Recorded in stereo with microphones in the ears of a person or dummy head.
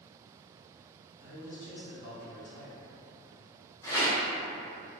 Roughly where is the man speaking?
Left.